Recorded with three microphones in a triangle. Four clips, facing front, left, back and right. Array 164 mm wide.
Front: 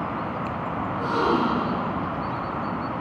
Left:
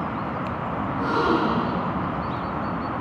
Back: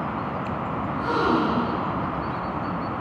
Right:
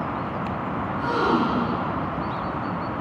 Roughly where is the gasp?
Left.